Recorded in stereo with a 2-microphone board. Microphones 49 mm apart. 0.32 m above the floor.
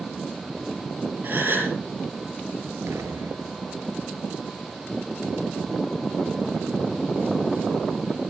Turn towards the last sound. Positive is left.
turn(degrees=-75)  # may be behind; listen again after turning